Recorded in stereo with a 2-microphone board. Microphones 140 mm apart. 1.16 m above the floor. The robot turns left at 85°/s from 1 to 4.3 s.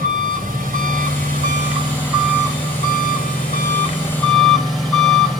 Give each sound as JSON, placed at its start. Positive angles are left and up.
{"t": 0.0, "sound": "an engine running", "azimuth_deg": -80, "distance_m": 7.0}